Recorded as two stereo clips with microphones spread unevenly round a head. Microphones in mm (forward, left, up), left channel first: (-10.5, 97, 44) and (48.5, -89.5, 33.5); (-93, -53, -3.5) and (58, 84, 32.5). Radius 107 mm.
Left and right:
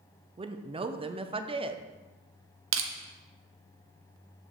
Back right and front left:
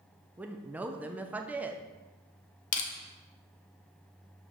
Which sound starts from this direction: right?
Crushing, at 2.7 s.